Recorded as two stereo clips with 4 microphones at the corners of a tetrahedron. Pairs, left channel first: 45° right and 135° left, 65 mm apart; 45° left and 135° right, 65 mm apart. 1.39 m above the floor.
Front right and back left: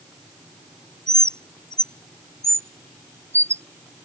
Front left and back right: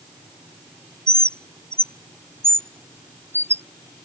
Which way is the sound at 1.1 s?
Straight behind.